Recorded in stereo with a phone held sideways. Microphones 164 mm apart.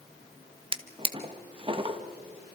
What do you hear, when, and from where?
0.7 s a drawer: 30° right (ahead or behind), 1.1 m